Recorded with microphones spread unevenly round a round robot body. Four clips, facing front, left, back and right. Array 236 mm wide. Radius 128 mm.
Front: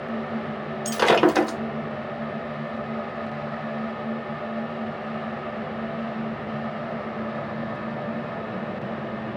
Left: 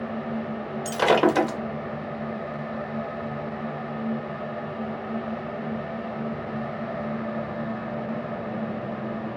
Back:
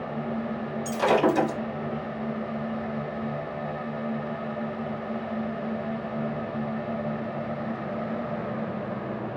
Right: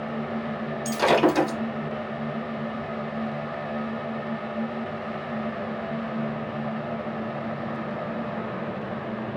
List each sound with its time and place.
0.8 s breaking glass: 10° left, 2 m